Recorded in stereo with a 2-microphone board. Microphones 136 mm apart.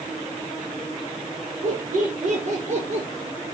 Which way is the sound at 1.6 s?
70° right (ahead or behind).